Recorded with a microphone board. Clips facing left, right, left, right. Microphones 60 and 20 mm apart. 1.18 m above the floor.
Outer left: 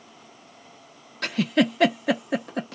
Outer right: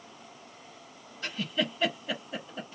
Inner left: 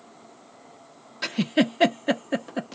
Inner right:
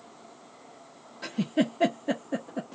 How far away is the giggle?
About 0.5 m.